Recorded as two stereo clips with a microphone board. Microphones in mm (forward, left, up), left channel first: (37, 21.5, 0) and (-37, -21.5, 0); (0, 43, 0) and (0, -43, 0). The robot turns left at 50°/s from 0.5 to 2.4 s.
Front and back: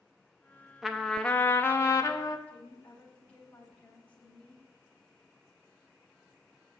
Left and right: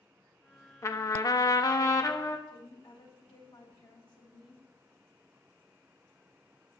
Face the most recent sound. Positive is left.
turn(degrees=105)